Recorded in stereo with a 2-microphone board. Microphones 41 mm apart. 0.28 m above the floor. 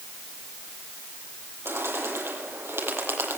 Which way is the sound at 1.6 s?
80° right.